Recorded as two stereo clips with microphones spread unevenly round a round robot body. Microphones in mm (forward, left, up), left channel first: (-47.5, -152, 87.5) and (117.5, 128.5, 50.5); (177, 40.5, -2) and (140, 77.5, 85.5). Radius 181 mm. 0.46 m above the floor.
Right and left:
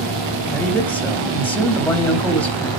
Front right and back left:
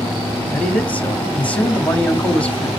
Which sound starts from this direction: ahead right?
A man speaking, at 0.5 s.